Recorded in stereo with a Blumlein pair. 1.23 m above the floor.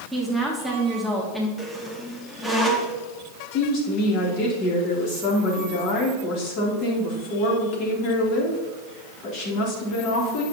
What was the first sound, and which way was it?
A woman speaking, straight ahead.